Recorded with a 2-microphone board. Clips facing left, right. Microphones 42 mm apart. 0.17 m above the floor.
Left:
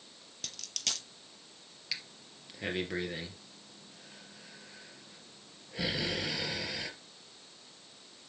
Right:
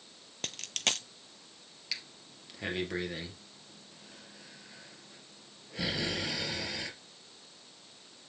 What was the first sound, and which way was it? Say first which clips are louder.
A dropped coin: right 6 dB; 50° right (ahead or behind).